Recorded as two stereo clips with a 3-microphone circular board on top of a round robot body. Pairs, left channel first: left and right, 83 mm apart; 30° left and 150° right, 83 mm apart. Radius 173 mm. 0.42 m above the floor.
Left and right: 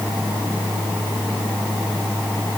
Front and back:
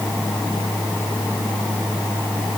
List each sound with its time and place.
Only background noise.